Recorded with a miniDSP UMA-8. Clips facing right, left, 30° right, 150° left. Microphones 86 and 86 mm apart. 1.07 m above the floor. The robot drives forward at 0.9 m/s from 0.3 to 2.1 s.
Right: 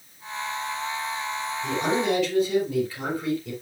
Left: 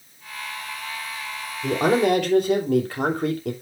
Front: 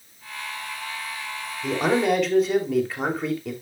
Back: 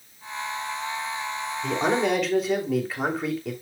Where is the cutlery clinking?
I don't hear cutlery clinking.